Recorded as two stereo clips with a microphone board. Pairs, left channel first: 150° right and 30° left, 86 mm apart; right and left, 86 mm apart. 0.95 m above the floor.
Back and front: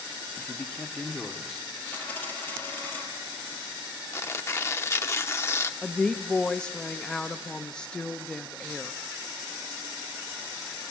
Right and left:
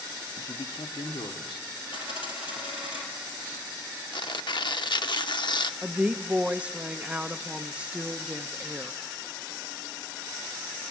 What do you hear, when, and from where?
0.4 s a man speaking: 80° right, 1.0 m; by 1.7 s 70° right, 2.5 m
1.9 s a dropped coin: 80° right, 4 m
4.1 s tearing paper: 95° right, 0.7 m
5.8 s a woman speaking: 145° left, 0.6 m